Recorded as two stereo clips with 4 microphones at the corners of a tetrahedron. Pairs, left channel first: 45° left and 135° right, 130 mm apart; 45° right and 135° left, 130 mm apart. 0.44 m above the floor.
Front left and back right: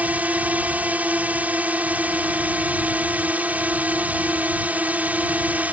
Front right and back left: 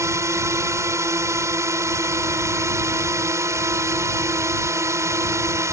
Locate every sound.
0.0 s a drone: 165° left